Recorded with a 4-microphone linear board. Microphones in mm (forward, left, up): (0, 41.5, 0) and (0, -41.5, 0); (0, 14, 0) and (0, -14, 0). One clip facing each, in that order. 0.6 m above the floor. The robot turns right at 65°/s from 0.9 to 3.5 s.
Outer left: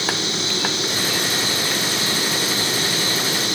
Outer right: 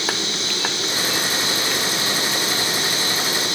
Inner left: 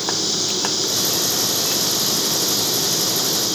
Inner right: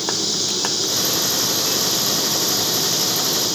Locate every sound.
Only background noise.